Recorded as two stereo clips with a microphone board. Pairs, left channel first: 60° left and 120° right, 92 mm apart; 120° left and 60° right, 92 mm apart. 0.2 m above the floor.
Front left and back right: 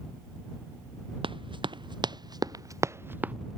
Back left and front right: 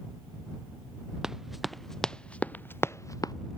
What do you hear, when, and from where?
1.2 s running footsteps: 145° right; by 3.3 s 165° left